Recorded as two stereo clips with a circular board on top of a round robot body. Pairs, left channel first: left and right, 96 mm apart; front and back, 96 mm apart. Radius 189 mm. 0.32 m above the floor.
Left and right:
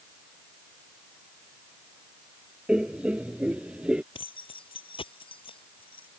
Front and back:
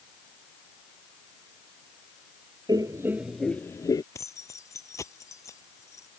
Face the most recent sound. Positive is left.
turn(degrees=60)